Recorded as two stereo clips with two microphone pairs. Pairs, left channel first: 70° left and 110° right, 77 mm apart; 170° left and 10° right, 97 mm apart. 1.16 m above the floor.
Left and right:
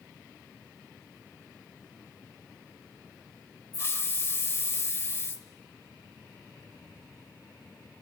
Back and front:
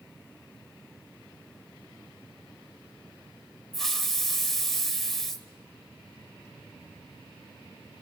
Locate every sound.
3.7 s a hiss: 85° left, 1.0 m